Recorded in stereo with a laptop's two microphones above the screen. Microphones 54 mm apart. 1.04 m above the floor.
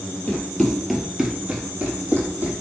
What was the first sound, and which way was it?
Running footsteps, 20° left (ahead or behind).